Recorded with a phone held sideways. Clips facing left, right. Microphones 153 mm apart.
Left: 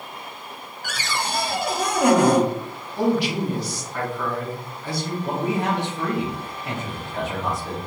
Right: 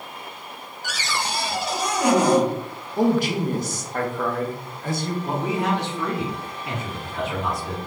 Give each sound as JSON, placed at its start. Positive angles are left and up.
{"t": 0.8, "sound": "a cupboard door", "side_deg": 55, "distance_m": 0.6}
{"t": 3.0, "sound": "a man speaking", "side_deg": -45, "distance_m": 0.6}
{"t": 5.2, "sound": "a man speaking", "side_deg": 50, "distance_m": 1.5}